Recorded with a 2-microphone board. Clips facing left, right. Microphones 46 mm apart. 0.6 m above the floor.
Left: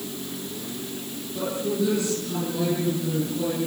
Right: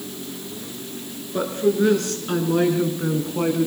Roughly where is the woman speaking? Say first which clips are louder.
Right 6 dB; right.